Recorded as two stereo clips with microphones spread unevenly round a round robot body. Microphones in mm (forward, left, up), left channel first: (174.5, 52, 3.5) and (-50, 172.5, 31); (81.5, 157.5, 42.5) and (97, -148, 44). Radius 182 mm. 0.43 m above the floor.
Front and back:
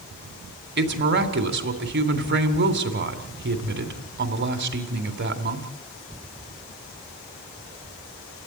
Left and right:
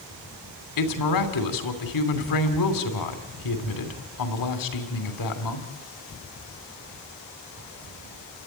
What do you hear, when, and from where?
0.8 s a woman speaking: 110° left, 3 m